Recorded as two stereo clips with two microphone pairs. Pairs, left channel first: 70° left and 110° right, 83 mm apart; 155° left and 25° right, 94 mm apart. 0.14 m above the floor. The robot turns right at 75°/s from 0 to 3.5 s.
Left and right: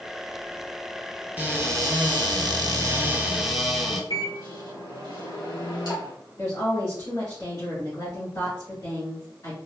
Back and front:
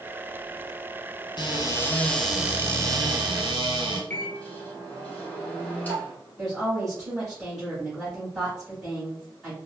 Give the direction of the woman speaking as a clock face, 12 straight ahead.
10 o'clock.